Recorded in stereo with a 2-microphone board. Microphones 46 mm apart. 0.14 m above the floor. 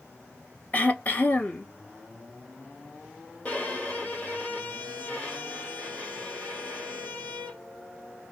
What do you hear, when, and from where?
0.7 s throat clearing: 35° left (ahead or behind), 0.8 m
3.5 s a violin: 30° left (ahead or behind), 1.3 m